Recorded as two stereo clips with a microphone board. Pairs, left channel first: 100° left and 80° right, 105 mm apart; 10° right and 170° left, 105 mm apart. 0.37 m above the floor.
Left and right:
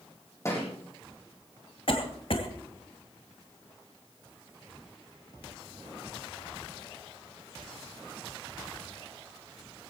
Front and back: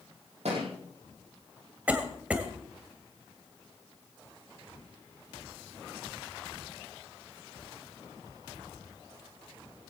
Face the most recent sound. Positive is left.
turn(degrees=95)